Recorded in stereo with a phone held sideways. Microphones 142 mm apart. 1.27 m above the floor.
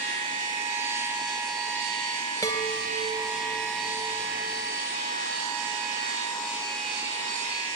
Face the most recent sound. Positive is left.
turn(degrees=25)  # may be behind; listen again after turning